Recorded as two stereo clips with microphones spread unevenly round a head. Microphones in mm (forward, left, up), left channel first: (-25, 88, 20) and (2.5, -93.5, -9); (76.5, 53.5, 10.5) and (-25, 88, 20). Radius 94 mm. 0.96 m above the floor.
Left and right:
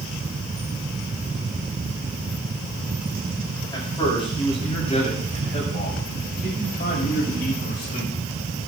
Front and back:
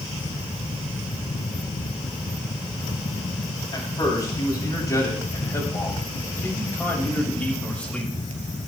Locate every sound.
3.7 s a man speaking: 20° left, 5.5 m; by 8.1 s 65° left, 5 m